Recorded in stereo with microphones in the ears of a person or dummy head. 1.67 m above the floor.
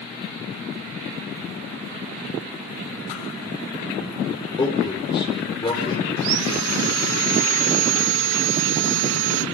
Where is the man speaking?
25° left (ahead or behind), 5 m.